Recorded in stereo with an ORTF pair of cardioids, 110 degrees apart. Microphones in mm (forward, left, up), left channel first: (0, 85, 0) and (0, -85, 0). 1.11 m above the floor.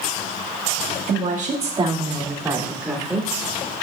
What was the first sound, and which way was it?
A woman speaking, 60° right.